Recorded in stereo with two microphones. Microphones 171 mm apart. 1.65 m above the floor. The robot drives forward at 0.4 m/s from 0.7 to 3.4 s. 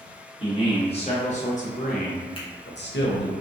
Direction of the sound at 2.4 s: 30° left (ahead or behind).